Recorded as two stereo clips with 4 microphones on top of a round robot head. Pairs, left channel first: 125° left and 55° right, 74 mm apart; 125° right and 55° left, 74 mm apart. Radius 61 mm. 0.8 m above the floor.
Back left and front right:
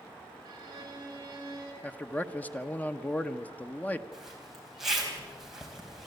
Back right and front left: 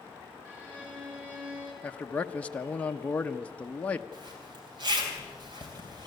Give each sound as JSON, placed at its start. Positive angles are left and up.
{"t": 0.5, "sound": "a violin", "azimuth_deg": -15, "distance_m": 5.0}
{"t": 1.8, "sound": "a man speaking", "azimuth_deg": 175, "distance_m": 0.8}
{"t": 4.1, "sound": "a zipper", "azimuth_deg": 30, "distance_m": 3.5}